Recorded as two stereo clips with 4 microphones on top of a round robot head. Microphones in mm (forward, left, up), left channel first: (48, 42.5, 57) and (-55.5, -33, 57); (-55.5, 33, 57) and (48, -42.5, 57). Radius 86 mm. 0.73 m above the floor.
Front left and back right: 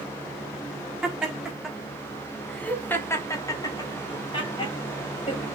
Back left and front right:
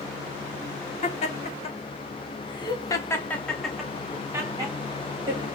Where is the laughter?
135° left, 1.6 m; by 5.5 s straight ahead, 1.3 m.